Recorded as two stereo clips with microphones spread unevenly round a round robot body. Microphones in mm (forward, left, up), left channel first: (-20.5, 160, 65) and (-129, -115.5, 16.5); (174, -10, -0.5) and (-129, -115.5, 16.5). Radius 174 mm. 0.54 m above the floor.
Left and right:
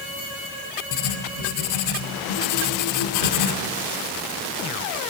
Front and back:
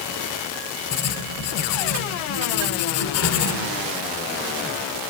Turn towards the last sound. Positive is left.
turn(degrees=55)